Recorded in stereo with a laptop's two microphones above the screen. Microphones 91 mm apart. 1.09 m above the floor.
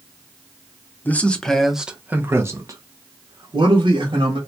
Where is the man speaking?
20° left (ahead or behind), 0.9 m; by 4.4 s 65° right (ahead or behind), 1.6 m.